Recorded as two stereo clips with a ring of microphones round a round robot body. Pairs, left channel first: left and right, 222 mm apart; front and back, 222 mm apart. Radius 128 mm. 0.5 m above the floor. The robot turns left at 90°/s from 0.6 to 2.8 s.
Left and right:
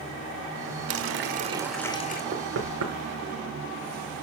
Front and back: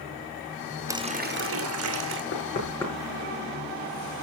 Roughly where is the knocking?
Ahead right.